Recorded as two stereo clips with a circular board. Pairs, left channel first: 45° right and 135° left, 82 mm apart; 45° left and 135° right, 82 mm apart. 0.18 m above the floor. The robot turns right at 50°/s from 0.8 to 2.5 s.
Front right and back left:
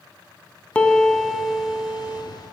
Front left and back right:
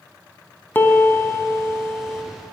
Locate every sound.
0.8 s a piano: 15° left, 0.6 m; by 2.2 s 85° left, 0.6 m